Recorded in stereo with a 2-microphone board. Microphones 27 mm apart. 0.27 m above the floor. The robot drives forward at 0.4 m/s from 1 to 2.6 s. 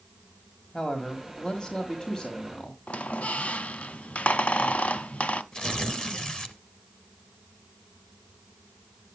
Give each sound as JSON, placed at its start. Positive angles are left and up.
{"t": 0.7, "sound": "a man speaking", "side_deg": 30, "distance_m": 1.5}
{"t": 2.9, "sound": "a squeak", "side_deg": 55, "distance_m": 0.6}
{"t": 5.5, "sound": "tearing paper", "side_deg": 35, "distance_m": 1.1}